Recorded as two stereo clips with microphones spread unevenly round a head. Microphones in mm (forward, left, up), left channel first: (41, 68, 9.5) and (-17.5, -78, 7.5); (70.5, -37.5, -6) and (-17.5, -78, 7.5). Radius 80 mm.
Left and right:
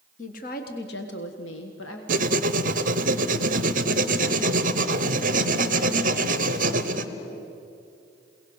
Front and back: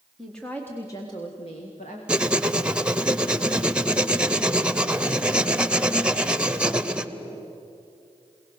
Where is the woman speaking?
115° left, 1.4 m; by 2.0 s 75° left, 1.6 m.